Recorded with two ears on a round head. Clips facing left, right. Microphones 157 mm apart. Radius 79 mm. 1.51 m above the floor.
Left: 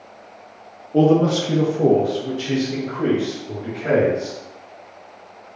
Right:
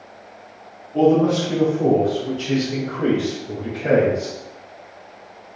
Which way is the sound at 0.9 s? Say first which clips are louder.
Even; 70° left (ahead or behind).